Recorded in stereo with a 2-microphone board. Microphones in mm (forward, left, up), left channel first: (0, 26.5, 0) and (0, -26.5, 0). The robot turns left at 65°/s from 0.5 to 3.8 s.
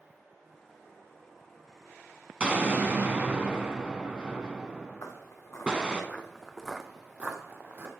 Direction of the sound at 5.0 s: 70° left (ahead or behind).